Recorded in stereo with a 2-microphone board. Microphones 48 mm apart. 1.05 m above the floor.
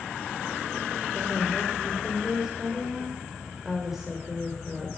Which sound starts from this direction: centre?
A woman speaking, at 1.1 s.